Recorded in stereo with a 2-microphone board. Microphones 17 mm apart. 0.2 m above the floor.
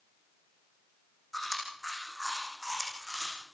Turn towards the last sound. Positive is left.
turn(degrees=5)  # may be behind; listen again after turning